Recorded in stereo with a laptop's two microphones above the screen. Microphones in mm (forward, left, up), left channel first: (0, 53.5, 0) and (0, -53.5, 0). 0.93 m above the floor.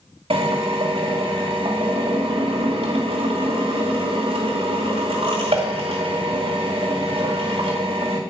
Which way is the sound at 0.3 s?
60° right (ahead or behind).